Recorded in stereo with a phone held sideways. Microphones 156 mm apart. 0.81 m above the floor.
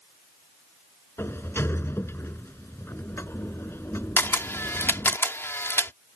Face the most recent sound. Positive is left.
turn(degrees=15)  # may be behind; listen again after turning